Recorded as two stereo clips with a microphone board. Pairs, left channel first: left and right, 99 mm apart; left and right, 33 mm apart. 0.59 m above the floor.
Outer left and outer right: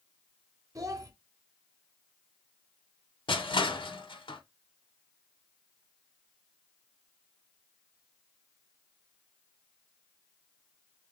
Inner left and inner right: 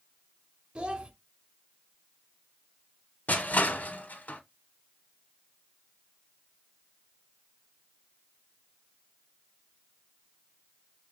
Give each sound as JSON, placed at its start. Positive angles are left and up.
{"t": 0.8, "sound": "a child speaking", "side_deg": -35, "distance_m": 0.8}
{"t": 3.3, "sound": "crushing", "side_deg": 60, "distance_m": 0.7}